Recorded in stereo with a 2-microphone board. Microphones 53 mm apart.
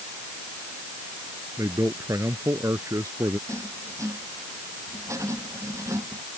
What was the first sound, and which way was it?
A man speaking, 90° right.